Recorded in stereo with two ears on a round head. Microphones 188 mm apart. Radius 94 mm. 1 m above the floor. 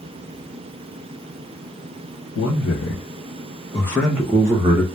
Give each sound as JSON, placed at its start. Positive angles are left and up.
{"t": 2.4, "sound": "a man speaking", "side_deg": 70, "distance_m": 0.9}